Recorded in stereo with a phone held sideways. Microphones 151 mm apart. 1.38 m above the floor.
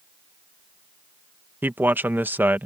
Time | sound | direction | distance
1.6 | a man speaking | 15° right (ahead or behind) | ?